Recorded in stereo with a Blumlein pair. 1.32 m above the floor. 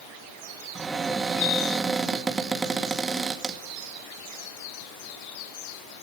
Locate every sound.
0.8 s a cupboard door: 15° right, 2.5 m